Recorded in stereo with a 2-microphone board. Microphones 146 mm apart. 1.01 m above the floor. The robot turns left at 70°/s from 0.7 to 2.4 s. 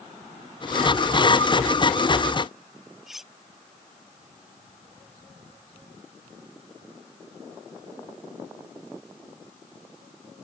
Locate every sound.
3.1 s cutlery clinking: 5° right (ahead or behind)